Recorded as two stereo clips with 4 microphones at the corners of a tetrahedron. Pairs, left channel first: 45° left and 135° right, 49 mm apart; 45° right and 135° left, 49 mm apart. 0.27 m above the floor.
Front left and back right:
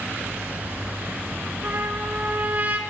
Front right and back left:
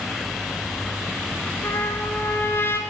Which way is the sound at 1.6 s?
80° right.